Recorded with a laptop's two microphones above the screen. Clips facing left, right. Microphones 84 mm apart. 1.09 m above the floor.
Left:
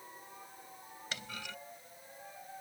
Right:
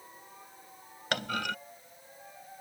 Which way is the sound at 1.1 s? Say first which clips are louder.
Right 13 dB; 65° right (ahead or behind).